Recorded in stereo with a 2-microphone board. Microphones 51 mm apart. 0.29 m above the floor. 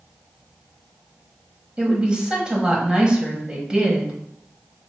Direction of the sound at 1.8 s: 20° right (ahead or behind).